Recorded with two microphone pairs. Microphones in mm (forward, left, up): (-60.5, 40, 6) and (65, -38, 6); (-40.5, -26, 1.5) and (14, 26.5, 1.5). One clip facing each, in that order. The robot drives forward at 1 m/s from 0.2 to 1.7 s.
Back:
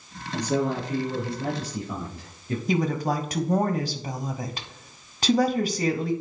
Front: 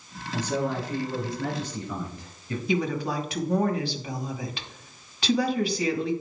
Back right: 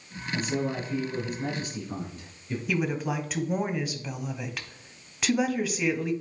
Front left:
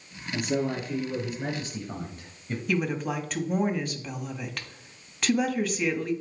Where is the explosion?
I don't hear an explosion.